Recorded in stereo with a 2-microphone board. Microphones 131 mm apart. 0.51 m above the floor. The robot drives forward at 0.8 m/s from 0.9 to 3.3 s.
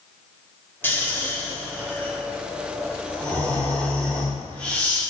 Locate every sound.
0.8 s snoring: 15° left (ahead or behind), 1.3 m; by 5.0 s 10° left (ahead or behind), 2 m